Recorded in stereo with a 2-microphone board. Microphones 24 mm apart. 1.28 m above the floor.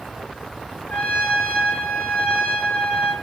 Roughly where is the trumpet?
Left.